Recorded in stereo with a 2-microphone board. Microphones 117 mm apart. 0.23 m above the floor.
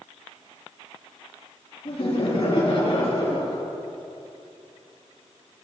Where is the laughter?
55° left (ahead or behind), 4 m.